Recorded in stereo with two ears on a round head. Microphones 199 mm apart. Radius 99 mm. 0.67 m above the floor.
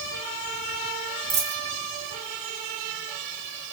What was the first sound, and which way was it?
A dropped coin, 30° right (ahead or behind).